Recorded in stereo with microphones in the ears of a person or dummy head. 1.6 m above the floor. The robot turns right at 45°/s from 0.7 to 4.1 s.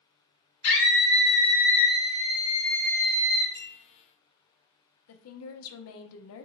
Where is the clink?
10° left (ahead or behind), 0.8 m; by 3.8 s 20° left (ahead or behind), 0.8 m.